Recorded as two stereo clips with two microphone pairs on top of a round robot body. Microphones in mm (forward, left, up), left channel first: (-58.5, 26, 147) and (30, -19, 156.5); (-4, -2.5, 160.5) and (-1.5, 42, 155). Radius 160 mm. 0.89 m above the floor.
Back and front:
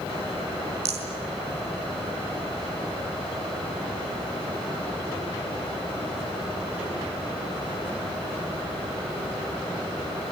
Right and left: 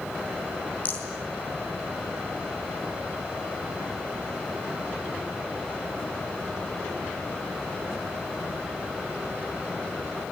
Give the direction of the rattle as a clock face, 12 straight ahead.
1 o'clock.